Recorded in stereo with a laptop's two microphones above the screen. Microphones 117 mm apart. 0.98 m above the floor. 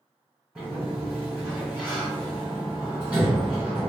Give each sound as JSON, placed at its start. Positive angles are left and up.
{"t": 0.6, "sound": "a sliding door", "side_deg": -10, "distance_m": 1.3}